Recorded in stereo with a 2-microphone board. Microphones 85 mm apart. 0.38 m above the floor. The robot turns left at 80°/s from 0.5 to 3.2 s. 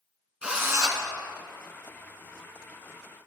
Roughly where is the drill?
Ahead.